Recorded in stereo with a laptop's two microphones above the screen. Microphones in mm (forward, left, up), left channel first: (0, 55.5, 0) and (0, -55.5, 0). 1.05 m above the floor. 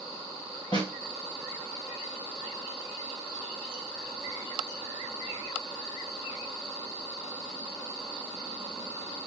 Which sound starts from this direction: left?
A snare drum, at 0.7 s.